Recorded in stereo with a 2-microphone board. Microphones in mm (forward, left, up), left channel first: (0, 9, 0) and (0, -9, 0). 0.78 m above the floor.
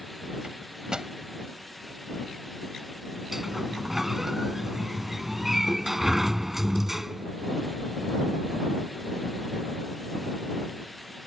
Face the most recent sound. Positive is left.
turn(degrees=-15)  # may be behind; listen again after turning